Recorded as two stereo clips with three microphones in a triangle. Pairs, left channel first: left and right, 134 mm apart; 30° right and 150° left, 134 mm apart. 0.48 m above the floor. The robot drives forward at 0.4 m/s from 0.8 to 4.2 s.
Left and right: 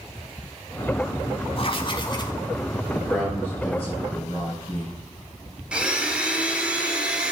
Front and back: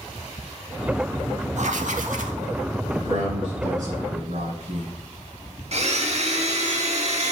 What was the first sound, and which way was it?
Writing, 130° left.